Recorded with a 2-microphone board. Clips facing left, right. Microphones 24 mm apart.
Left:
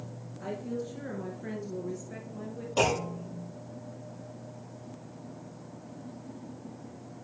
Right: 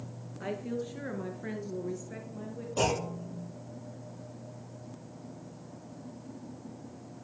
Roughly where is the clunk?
Left.